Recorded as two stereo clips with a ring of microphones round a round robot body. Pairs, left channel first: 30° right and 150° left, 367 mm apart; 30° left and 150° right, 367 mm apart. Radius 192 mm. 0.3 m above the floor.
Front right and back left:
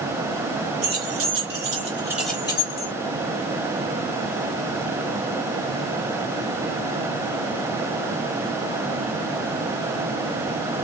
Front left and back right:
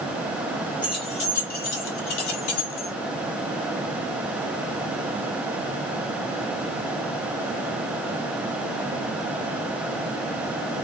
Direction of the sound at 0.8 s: 105° left.